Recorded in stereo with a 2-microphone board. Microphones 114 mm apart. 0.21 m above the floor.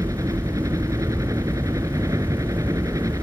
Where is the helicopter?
30° right (ahead or behind).